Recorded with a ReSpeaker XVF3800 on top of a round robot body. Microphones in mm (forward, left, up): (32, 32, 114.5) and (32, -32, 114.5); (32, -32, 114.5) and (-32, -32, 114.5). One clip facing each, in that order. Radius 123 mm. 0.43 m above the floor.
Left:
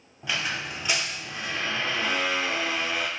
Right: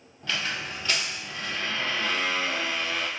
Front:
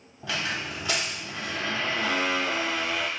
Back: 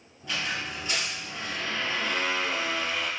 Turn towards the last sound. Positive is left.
turn(degrees=15)